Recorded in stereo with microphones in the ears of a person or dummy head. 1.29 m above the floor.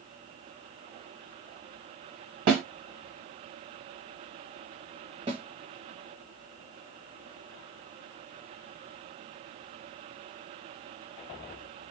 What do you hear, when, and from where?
2.5 s a snare drum: 55° right (ahead or behind), 2 m
5.3 s a snare drum: 30° right (ahead or behind), 1.4 m